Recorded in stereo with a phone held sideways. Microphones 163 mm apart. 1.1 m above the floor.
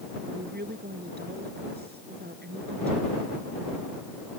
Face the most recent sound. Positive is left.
turn(degrees=-85)